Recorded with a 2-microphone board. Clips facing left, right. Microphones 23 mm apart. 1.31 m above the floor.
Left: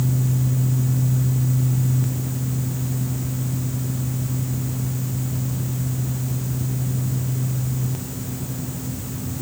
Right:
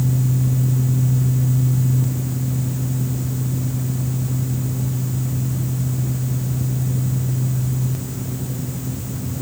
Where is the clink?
No clink in this recording.